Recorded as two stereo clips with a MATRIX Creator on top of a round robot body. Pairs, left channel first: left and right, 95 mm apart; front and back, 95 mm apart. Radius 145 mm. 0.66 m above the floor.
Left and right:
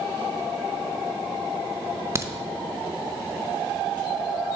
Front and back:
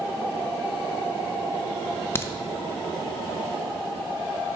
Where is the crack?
50° right, 0.8 m.